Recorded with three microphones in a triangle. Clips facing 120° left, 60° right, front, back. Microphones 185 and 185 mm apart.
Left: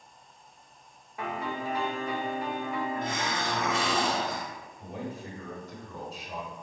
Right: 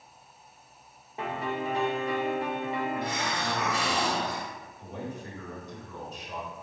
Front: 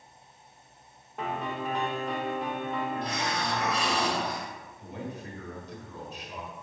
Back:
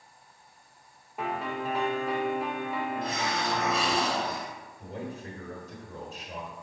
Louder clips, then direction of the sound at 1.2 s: Right 2 dB, back 1 dB; 100° right.